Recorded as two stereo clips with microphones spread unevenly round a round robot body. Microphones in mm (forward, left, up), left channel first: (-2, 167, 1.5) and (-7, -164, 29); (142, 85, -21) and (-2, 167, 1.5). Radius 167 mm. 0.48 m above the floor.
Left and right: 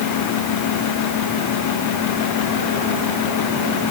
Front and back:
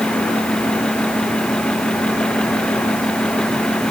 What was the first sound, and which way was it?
Only background noise.